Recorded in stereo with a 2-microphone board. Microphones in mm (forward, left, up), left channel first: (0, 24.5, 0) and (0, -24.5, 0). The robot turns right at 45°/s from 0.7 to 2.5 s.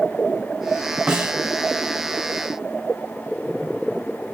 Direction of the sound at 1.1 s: 20° right (ahead or behind).